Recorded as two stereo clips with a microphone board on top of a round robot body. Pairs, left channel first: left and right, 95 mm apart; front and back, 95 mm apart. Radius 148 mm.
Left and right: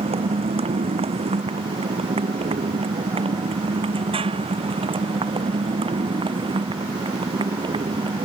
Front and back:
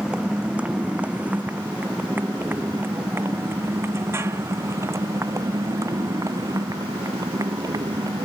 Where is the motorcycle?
100° right; by 8.2 s 125° right.